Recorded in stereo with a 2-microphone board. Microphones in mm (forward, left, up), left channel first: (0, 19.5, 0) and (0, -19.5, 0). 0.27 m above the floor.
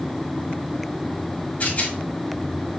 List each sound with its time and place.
1.6 s a rattle: 40° left (ahead or behind), 1.7 m